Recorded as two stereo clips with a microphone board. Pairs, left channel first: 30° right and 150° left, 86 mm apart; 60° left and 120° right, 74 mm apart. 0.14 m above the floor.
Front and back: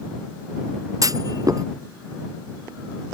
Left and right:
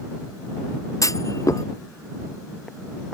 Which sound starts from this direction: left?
A clunk, at 1.0 s.